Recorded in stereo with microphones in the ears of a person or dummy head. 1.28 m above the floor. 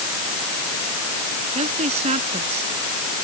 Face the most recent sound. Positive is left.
turn(degrees=-40)  # may be behind; listen again after turning